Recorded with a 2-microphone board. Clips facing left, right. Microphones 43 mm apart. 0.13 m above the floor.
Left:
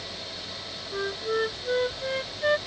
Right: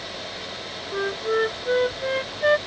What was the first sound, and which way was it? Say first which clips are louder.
A flute: right 4 dB; 20° right (ahead or behind).